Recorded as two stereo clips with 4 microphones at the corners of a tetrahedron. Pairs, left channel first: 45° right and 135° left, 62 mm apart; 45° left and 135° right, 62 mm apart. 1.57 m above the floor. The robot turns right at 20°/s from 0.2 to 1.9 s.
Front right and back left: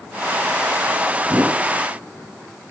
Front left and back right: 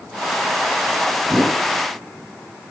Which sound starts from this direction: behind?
A whoosh, at 1.2 s.